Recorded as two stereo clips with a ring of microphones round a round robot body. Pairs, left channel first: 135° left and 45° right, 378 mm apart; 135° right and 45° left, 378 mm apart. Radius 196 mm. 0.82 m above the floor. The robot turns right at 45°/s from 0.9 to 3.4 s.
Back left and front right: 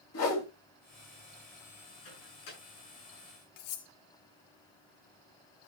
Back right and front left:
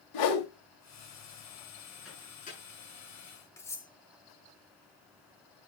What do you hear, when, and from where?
0.1 s a whoosh: 170° right, 2.5 m
2.0 s a microwave: 135° left, 9.5 m; by 2.6 s 160° left, 9.5 m
3.6 s cutlery clinking: 140° left, 1.4 m